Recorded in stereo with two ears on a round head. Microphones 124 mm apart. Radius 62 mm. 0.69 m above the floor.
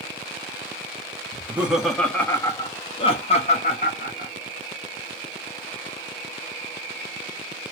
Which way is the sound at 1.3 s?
15° right (ahead or behind).